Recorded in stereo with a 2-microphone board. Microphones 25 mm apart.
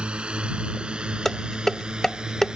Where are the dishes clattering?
15° left (ahead or behind).